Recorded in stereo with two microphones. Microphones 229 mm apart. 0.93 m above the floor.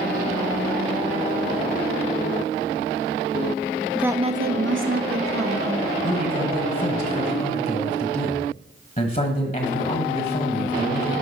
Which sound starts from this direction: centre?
A woman speaking, at 4.0 s.